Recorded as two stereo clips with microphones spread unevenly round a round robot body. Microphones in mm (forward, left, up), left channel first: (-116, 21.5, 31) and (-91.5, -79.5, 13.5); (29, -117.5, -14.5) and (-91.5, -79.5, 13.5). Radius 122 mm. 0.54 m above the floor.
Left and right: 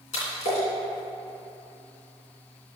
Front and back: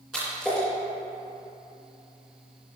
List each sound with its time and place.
0.1 s a splash: 75° left, 3 m